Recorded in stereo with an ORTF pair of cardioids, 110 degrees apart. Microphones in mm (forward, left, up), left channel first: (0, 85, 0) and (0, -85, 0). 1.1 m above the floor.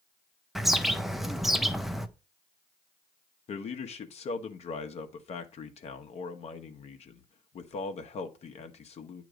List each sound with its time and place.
0.6 s a bird: straight ahead, 0.6 m
3.5 s a man speaking: 40° left, 1.0 m